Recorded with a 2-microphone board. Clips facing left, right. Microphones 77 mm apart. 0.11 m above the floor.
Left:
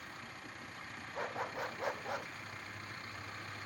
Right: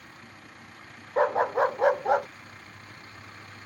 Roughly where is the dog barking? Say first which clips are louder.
Right 17 dB; right.